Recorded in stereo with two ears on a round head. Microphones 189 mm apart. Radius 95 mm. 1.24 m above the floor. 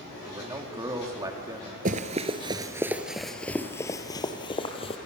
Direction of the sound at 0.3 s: 20° right (ahead or behind).